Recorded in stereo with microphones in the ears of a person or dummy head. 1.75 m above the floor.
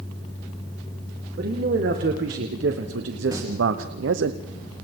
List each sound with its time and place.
1.4 s a man speaking: 55° right (ahead or behind), 2 m; by 4.3 s 75° right (ahead or behind), 0.9 m
3.3 s singing: 20° right (ahead or behind), 4.5 m